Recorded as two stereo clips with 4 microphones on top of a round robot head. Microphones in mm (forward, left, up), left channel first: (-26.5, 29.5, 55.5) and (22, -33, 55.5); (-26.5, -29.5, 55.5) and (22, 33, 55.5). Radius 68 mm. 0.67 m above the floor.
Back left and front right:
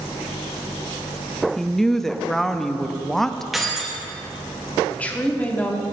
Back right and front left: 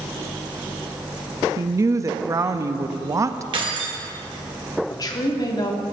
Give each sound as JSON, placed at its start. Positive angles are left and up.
{"t": 1.6, "sound": "a woman speaking", "azimuth_deg": 40, "distance_m": 0.6}
{"t": 3.5, "sound": "keys jangling", "azimuth_deg": 35, "distance_m": 1.7}
{"t": 4.9, "sound": "a woman speaking", "azimuth_deg": -160, "distance_m": 1.4}